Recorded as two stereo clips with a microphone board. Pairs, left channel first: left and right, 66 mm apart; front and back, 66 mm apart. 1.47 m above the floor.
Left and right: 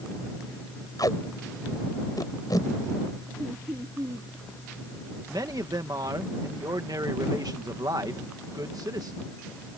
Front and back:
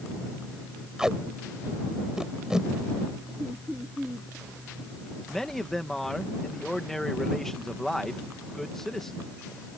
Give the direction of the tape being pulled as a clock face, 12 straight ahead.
9 o'clock.